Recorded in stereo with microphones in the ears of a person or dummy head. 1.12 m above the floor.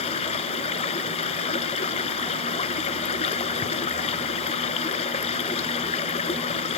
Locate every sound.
0.0 s running water: 30° left (ahead or behind)